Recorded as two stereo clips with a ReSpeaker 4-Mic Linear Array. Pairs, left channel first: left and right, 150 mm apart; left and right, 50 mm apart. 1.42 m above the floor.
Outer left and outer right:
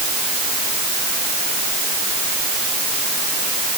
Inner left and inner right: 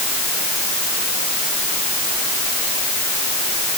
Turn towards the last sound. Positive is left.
No sound to turn to.